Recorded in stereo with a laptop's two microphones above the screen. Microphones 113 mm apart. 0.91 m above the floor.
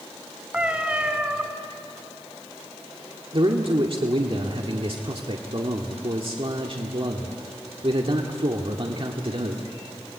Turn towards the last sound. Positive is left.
turn(degrees=-55)  # may be behind; listen again after turning